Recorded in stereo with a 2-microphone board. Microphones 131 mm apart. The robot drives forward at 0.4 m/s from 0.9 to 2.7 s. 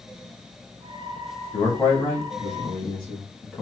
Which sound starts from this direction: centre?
A man speaking, at 1.5 s.